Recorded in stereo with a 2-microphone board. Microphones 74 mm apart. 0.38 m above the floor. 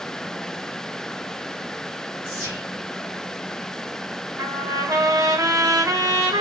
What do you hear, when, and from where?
2.2 s whispering: 55° right (ahead or behind), 2 m
4.4 s a trumpet: 55° right (ahead or behind), 0.6 m